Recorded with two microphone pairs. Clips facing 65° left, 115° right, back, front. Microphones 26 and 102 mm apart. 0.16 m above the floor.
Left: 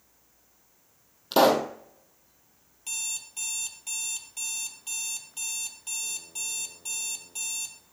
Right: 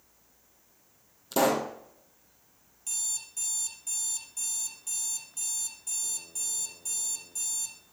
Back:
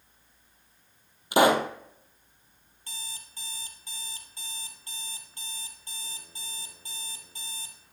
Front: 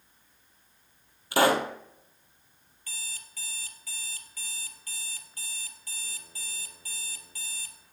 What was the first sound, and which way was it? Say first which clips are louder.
A pop: left 5 dB, back 2 dB; 110° left.